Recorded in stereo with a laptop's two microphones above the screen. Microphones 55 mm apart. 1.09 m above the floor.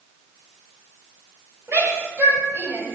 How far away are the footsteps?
No footsteps in this recording.